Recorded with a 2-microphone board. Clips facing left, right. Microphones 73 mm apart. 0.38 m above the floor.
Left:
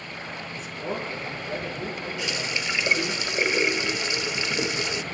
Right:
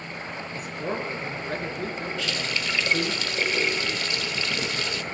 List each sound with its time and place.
0.5 s a man speaking: 60° right (ahead or behind), 4.5 m
2.2 s a running tap: 20° left (ahead or behind), 0.6 m